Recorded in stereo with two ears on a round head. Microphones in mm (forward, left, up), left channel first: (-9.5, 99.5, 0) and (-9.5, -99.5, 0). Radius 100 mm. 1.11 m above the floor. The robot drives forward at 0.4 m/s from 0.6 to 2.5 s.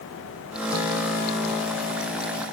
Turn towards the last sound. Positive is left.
No sound to turn to.